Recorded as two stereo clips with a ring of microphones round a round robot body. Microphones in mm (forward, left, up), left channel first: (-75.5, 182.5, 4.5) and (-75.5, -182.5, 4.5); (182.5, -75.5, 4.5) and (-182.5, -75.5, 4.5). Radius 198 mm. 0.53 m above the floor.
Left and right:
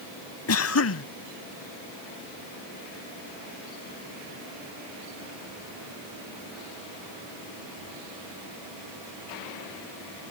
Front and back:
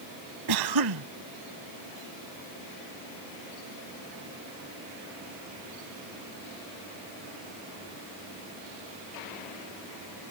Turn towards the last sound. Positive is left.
turn(degrees=140)